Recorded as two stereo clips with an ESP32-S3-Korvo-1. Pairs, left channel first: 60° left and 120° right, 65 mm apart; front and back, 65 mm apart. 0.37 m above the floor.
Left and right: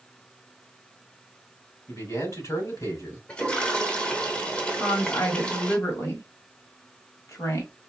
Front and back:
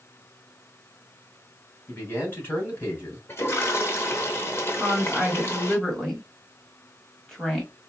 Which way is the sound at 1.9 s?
50° left.